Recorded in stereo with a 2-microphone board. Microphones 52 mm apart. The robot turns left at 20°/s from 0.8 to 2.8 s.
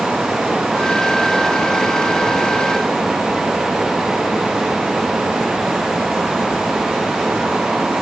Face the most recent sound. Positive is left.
No sound to turn to.